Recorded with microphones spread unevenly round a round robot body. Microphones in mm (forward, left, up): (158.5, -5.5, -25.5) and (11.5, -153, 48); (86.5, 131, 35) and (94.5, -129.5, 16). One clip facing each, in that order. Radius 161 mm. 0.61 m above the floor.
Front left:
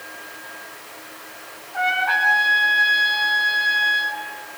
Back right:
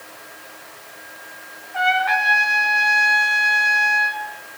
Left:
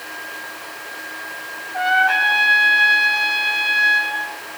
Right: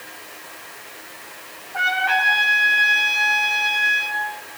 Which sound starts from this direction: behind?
A trumpet, at 1.7 s.